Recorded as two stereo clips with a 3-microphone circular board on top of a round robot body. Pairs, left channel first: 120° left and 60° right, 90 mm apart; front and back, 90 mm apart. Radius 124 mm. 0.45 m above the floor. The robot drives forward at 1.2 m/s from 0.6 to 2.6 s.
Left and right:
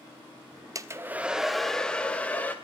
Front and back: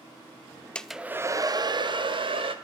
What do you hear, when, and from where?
0.8 s a hair dryer: 70° right, 0.9 m; by 2.5 s 165° right, 2 m